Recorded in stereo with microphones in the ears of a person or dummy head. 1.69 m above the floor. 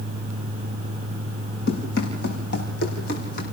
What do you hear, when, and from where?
1.7 s running footsteps: 70° left (ahead or behind), 6 m; by 3.5 s 60° left (ahead or behind), 5.5 m